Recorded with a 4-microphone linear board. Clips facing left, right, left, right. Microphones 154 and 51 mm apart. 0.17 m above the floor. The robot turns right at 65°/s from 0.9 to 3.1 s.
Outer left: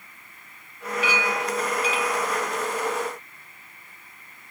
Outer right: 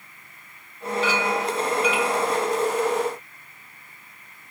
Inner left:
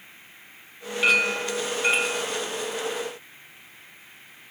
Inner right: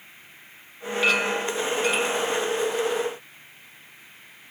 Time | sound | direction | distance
1.0 | a clink | 20° left | 1.0 m